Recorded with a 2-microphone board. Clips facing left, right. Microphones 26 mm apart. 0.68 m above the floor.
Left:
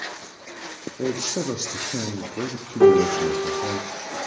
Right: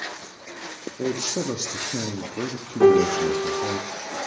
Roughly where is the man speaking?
Left.